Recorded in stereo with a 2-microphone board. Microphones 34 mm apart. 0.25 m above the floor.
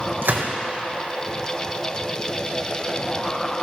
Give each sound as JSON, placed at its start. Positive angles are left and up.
{"t": 0.2, "sound": "a gunshot", "side_deg": -80, "distance_m": 3.0}